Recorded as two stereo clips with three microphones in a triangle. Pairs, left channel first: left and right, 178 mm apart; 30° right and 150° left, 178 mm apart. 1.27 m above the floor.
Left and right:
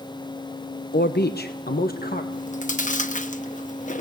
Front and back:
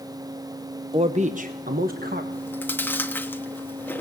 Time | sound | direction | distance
0.9 | a man speaking | 95° left | 0.8 m
2.3 | chewing | 50° left | 1.1 m